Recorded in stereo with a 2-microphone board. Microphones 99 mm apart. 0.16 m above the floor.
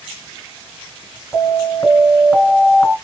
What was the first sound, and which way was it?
An alarm, 15° left (ahead or behind).